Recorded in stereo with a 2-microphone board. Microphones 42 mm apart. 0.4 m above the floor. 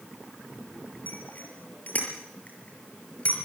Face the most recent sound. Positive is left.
turn(degrees=35)  # may be behind; listen again after turning